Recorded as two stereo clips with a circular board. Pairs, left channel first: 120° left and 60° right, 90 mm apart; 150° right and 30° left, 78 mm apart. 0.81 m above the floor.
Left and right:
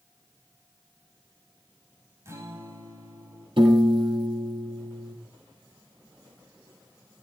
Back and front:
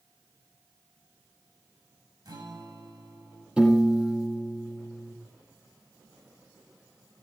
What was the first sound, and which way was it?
A guitar, straight ahead.